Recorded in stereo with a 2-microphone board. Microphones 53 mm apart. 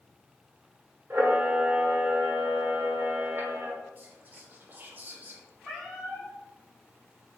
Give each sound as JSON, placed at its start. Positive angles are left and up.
{"t": 1.1, "sound": "a camera shutter", "side_deg": -45, "distance_m": 1.0}
{"t": 4.0, "sound": "whispering", "side_deg": -35, "distance_m": 0.6}
{"t": 5.6, "sound": "a cat meowing", "side_deg": -10, "distance_m": 1.6}